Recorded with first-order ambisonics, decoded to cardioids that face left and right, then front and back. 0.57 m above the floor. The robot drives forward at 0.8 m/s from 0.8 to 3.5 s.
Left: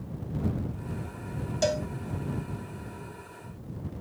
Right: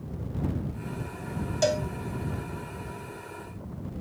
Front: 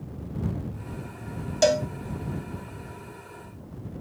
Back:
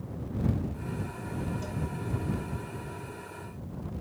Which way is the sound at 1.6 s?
5° right.